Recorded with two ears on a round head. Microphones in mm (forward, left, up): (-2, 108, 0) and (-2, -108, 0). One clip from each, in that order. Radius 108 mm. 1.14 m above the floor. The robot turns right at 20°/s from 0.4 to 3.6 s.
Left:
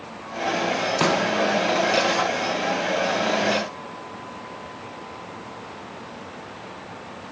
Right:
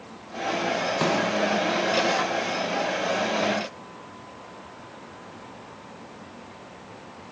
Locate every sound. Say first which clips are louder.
1.0 s a pop: left 4 dB; 20° left (ahead or behind), 1.0 m